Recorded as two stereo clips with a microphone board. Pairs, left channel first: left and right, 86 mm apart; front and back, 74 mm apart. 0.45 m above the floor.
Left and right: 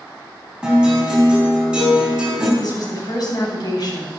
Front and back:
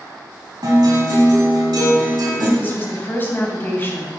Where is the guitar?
170° right, 4 m.